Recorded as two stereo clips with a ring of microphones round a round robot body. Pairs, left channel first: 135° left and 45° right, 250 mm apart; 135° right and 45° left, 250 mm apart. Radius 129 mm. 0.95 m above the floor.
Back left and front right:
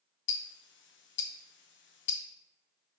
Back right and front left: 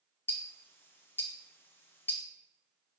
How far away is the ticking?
About 0.6 m.